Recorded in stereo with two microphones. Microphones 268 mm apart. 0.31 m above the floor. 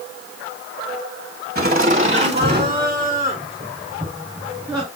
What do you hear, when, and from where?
1.6 s laughter: 35° right (ahead or behind), 1.8 m; by 4.9 s 5° right (ahead or behind), 4.5 m